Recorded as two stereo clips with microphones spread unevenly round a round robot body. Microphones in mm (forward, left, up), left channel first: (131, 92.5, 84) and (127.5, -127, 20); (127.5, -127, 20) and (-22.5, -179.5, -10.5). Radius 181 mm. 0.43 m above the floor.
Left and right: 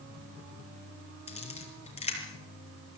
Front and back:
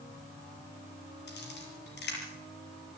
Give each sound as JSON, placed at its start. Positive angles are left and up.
{"t": 1.3, "sound": "a camera shutter", "azimuth_deg": 25, "distance_m": 6.5}